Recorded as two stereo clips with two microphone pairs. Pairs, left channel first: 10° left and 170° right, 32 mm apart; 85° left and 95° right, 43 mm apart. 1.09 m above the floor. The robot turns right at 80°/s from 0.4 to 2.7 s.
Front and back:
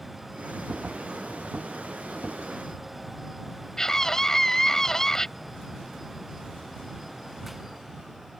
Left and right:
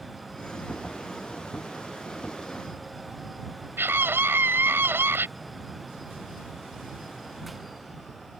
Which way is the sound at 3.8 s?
70° right.